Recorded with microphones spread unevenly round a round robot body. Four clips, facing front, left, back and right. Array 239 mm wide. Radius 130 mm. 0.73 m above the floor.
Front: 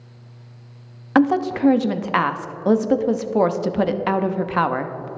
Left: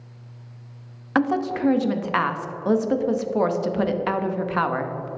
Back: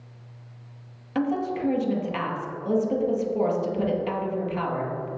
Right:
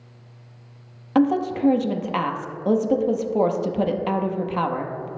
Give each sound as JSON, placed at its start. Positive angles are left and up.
{"t": 1.1, "sound": "a woman speaking", "azimuth_deg": -15, "distance_m": 0.8}